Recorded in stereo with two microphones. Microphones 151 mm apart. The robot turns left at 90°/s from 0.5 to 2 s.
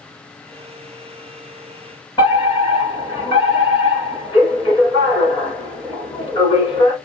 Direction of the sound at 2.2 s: 30° left (ahead or behind).